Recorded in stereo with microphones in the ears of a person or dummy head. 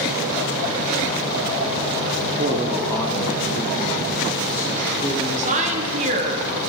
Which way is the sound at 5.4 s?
45° right (ahead or behind).